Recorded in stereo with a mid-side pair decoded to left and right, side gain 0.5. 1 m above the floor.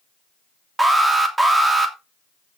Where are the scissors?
No scissors in this recording.